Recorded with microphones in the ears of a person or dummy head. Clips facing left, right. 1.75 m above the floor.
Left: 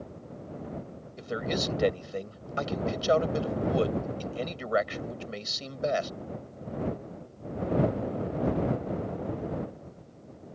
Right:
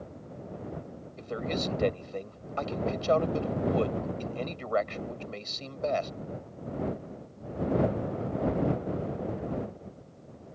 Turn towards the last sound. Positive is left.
turn(degrees=20)  # may be behind; listen again after turning